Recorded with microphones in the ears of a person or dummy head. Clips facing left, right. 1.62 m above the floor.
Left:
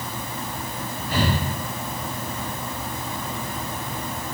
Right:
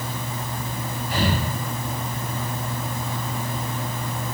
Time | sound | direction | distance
1.1 | breathing | 55° left (ahead or behind) | 1.3 m